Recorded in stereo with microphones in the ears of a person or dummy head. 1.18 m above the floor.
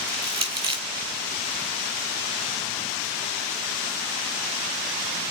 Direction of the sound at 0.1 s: 25° right (ahead or behind).